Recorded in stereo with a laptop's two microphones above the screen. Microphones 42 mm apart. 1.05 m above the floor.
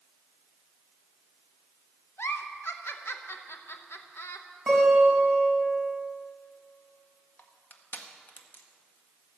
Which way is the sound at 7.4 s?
45° left (ahead or behind).